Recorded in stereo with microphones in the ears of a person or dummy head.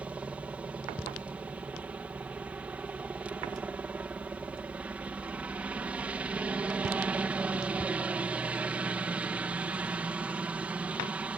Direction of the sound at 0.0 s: 5° right (ahead or behind).